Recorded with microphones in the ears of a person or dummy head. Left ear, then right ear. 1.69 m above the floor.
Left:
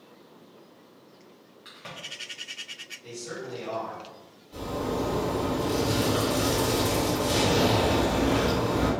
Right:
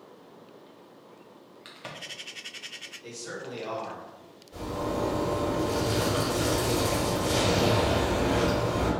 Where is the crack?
25° right (ahead or behind), 0.6 m.